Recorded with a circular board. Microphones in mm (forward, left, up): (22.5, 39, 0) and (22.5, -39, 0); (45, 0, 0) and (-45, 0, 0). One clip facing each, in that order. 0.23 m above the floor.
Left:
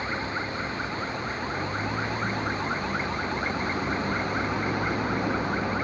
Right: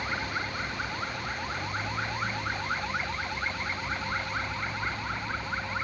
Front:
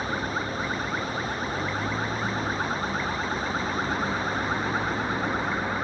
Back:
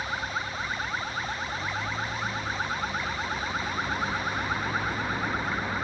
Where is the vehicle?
25° left; by 5.8 s 75° left.